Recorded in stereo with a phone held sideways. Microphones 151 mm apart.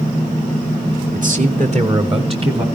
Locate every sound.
1.1 s a man speaking: 65° right (ahead or behind), 2 m; by 2.6 s 35° right (ahead or behind), 3 m